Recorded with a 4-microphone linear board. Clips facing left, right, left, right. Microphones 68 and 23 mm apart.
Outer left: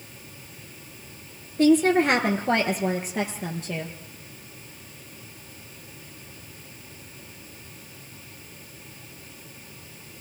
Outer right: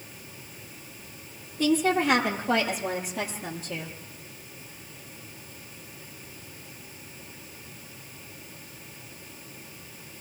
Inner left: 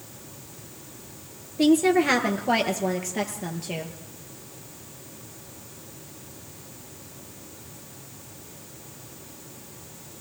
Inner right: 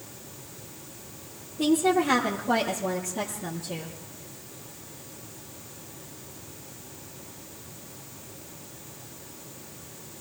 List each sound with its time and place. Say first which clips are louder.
1.6 s a woman speaking: outer left 5 dB, inner left 4 dB; 70° left (ahead or behind), 4.5 m; by 4.0 s 75° left (ahead or behind), 5.5 m